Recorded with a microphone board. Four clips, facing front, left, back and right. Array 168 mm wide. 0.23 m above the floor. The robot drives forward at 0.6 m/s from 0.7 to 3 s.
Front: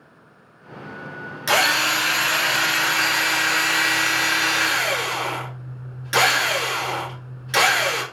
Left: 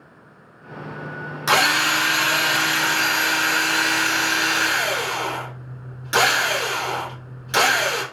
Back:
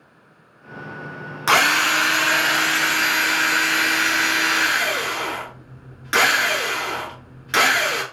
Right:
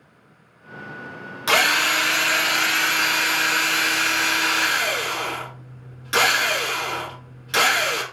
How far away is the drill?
About 1.1 m.